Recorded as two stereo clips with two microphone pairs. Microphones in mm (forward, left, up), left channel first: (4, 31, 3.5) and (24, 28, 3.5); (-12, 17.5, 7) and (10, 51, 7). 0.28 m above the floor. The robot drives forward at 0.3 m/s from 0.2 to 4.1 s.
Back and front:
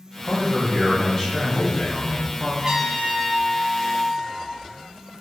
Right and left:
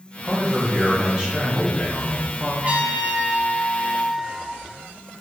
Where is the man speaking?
90° left, 1.2 m; by 2.5 s 140° left, 1.4 m.